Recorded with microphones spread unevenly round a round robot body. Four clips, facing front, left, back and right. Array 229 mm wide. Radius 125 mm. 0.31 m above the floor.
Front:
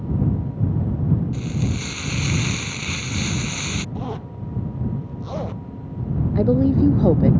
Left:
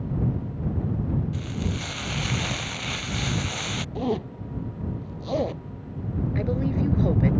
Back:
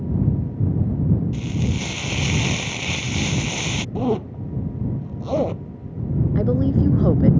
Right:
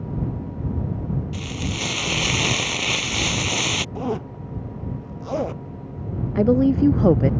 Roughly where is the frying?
Right.